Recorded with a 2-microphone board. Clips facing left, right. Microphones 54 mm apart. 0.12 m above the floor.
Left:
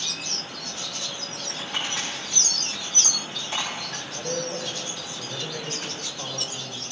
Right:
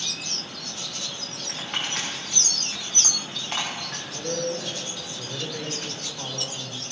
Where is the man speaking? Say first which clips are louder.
Right 2 dB; 35° right (ahead or behind), 6 m.